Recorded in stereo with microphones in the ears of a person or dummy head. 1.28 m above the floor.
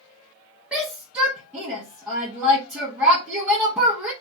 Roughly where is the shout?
Centre.